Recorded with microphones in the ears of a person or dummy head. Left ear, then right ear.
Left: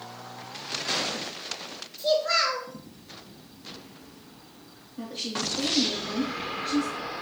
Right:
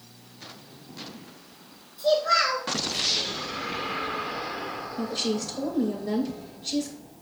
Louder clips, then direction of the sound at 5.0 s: Right 2 dB; 45° right (ahead or behind).